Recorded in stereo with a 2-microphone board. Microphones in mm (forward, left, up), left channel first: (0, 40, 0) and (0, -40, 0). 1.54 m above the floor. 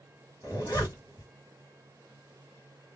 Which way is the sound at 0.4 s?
45° left (ahead or behind).